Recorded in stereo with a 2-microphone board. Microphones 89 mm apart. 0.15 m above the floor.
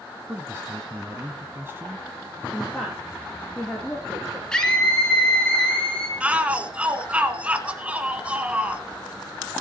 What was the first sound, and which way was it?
A man speaking, 25° right (ahead or behind).